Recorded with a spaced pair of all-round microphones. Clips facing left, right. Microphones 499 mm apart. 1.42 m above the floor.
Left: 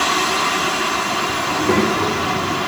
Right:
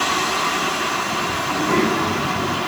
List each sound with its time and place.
1.4 s a child speaking: 85° left, 3.5 m; by 2.6 s 80° left, 3 m